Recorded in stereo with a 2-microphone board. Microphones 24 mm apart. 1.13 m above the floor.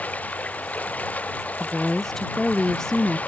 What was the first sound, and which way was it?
Running water, 85° left.